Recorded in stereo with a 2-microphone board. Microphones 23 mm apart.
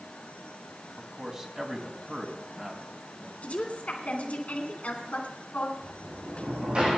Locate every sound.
1.0 s a man speaking: 25° right (ahead or behind), 2.5 m
3.4 s a woman speaking: 65° left (ahead or behind), 2.5 m
5.8 s a sliding door: 50° right (ahead or behind), 7 m